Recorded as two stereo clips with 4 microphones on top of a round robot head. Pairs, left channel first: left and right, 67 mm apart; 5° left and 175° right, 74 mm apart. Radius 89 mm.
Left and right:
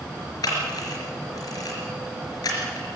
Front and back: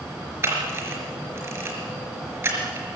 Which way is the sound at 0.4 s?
130° left.